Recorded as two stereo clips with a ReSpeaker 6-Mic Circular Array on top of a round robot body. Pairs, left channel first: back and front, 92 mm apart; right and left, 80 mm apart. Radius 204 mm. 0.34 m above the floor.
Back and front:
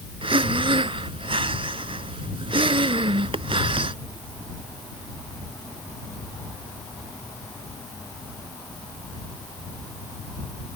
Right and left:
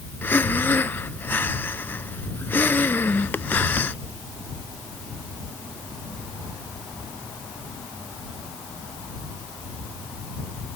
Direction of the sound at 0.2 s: 25° right.